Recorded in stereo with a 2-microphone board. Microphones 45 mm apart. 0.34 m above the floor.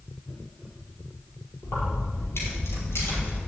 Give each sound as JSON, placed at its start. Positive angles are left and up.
{"t": 1.6, "sound": "keys jangling", "side_deg": 80, "distance_m": 5.0}